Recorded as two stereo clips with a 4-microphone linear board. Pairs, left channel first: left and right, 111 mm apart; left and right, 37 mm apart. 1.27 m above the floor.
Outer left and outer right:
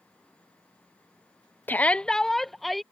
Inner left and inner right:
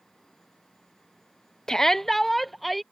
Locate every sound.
1.7 s a shout: 15° left (ahead or behind); by 2.8 s centre (ahead or behind)